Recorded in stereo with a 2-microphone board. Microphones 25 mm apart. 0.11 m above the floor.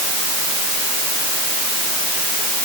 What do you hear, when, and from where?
Only background noise.